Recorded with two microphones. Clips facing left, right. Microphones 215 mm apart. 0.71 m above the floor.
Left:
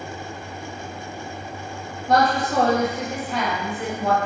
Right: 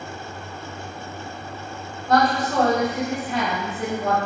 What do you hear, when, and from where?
2.1 s a woman speaking: 35° left (ahead or behind), 1.0 m; by 4.2 s 45° right (ahead or behind), 1.1 m